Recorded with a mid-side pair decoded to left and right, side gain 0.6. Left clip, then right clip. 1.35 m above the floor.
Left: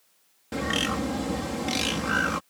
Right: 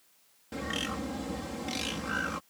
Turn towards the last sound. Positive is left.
turn(degrees=40)